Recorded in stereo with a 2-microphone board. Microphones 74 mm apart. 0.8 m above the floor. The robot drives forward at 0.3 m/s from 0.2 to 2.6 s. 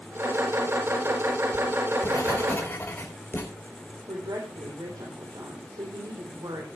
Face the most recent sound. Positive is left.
turn(degrees=-75)  # may be behind; listen again after turning